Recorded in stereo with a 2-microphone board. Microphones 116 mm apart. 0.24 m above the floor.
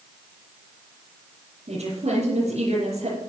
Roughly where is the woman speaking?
Right.